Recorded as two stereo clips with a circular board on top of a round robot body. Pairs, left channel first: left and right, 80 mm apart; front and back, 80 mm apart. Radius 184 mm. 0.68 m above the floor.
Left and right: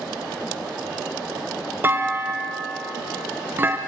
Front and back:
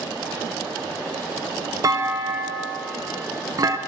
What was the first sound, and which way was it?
A clunk, 150° right.